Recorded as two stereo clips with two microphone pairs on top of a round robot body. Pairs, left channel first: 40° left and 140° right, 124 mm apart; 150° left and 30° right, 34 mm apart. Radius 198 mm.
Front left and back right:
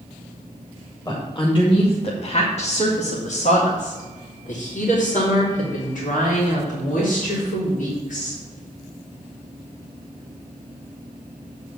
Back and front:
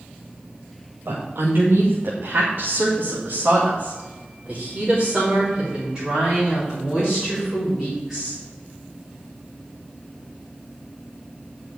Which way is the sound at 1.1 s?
20° right.